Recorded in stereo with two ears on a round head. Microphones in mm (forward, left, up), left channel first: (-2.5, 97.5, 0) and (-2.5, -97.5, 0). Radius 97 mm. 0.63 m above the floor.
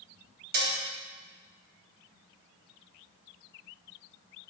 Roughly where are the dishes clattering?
Right.